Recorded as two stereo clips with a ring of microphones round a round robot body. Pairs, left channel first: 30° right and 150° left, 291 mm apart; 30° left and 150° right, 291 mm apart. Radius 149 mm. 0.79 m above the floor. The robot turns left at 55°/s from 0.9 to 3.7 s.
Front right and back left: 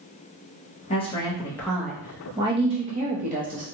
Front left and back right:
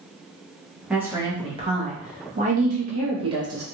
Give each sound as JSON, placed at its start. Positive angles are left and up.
{"t": 0.9, "sound": "a woman speaking", "azimuth_deg": -70, "distance_m": 0.8}